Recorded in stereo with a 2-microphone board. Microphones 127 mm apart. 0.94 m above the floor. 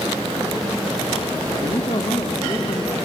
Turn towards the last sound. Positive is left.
turn(degrees=35)  # may be behind; listen again after turning